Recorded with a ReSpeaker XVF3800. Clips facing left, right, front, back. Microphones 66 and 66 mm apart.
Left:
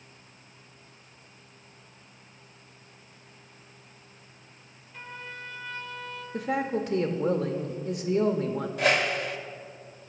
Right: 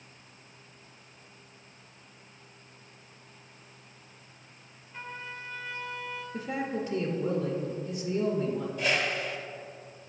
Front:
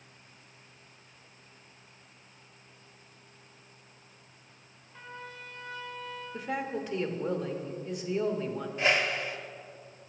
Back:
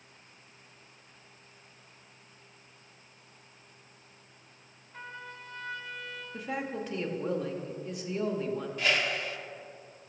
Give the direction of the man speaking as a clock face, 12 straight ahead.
9 o'clock.